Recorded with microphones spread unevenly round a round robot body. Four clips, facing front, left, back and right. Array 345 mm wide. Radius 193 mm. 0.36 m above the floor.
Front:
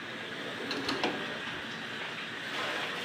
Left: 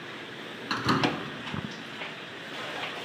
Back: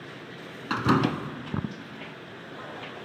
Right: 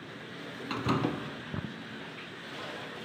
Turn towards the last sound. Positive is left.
turn(degrees=160)